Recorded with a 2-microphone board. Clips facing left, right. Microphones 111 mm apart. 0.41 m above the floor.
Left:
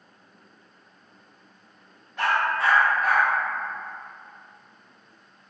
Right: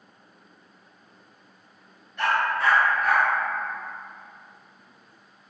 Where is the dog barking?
75° left (ahead or behind), 0.8 m.